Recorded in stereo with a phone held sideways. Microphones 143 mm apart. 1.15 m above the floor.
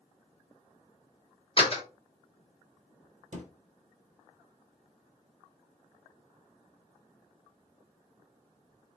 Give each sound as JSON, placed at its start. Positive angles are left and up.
{"t": 1.6, "sound": "a door slam", "side_deg": 40, "distance_m": 1.4}
{"t": 3.3, "sound": "a thud", "side_deg": -55, "distance_m": 1.9}